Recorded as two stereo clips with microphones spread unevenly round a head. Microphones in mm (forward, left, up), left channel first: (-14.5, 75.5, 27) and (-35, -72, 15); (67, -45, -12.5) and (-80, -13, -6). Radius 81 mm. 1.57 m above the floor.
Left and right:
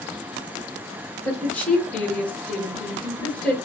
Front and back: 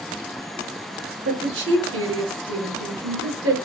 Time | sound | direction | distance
1.2 | a woman speaking | 165° left | 1.4 m